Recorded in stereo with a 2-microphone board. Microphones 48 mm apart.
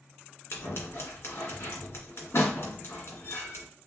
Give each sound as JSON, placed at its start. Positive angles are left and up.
{"t": 0.5, "sound": "scissors", "side_deg": 60, "distance_m": 2.0}